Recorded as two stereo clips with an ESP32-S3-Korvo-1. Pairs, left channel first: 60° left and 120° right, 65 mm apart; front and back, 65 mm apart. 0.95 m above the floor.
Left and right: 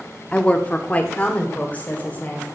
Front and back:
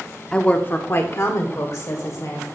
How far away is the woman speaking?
About 0.9 m.